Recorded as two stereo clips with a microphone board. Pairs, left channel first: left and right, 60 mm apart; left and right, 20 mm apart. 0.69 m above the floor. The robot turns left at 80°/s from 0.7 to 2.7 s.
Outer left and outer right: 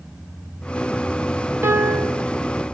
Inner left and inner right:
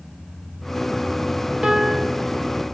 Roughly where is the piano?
Ahead right.